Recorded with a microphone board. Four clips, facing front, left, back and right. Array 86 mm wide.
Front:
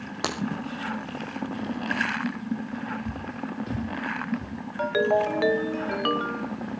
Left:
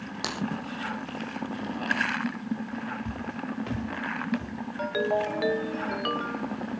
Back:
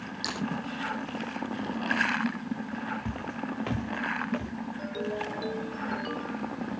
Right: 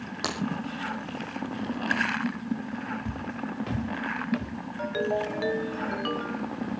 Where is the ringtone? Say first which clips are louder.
Left 1 dB, front 13 dB; 10° left, 0.9 m.